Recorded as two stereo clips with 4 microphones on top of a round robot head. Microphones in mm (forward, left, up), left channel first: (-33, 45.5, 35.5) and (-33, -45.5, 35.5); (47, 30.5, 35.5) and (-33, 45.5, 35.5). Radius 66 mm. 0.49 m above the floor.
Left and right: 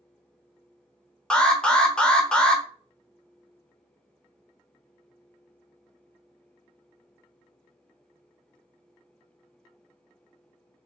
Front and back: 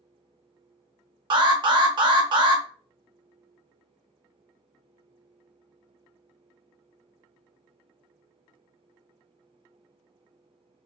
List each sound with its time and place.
1.3 s an alarm: 170° left, 1.1 m